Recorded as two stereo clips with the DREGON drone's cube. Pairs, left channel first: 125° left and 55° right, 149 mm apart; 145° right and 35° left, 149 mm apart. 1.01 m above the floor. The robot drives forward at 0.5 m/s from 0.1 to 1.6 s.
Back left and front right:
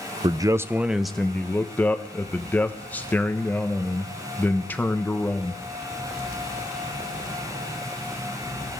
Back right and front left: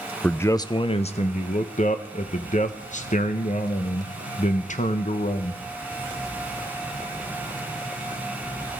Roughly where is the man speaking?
Right.